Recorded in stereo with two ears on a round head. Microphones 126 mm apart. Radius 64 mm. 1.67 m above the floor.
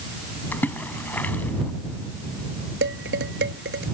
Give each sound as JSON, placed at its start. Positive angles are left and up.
{"t": 0.5, "sound": "a splash", "side_deg": 10}
{"t": 2.8, "sound": "dishes clattering", "side_deg": -80}